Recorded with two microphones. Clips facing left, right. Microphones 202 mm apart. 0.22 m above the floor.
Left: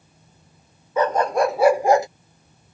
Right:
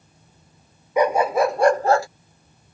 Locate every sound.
1.0 s a dog barking: 15° right (ahead or behind); by 2.1 s 20° left (ahead or behind)